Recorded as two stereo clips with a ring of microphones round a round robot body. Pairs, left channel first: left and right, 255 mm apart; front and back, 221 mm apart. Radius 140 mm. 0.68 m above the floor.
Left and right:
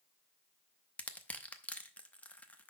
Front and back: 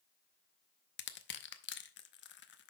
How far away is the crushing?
About 0.8 m.